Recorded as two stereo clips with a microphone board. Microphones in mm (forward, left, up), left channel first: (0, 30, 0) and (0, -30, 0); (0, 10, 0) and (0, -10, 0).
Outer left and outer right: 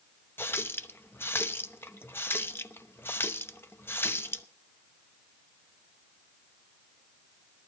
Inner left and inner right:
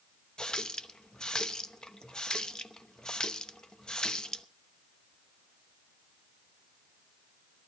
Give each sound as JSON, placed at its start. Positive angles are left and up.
{"t": 0.4, "sound": "a running tap", "side_deg": 40, "distance_m": 0.7}